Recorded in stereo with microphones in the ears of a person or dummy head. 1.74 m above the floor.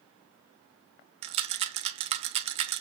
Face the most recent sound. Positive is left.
turn(degrees=-35)  # may be behind; listen again after turning